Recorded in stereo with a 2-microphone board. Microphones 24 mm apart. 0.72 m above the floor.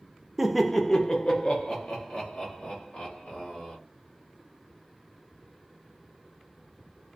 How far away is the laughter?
About 0.5 m.